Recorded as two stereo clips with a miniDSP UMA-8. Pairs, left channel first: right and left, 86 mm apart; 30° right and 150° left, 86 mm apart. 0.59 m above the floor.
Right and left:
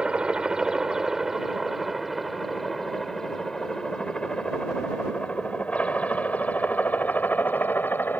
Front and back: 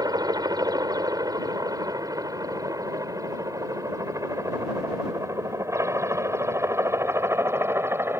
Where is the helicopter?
165° left; by 8.2 s 155° right.